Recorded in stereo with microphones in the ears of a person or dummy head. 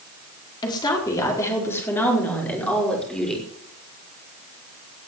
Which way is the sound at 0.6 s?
25° left (ahead or behind).